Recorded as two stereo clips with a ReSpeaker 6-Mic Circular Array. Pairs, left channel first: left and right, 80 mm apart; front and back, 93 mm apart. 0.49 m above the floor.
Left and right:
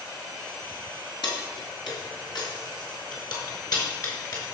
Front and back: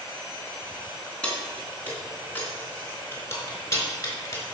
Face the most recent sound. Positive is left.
turn(degrees=50)